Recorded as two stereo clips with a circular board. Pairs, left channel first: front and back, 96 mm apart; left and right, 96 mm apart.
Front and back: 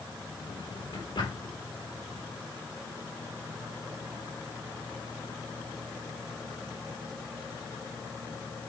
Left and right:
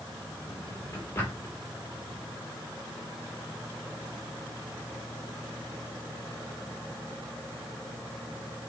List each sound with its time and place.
0.5 s a drawer: 25° left, 5 m